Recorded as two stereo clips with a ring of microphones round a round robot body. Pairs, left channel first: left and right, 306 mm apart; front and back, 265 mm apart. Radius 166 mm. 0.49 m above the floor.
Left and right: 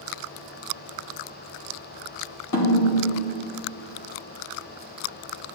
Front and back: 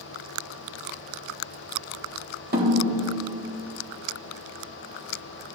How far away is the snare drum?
About 2.5 m.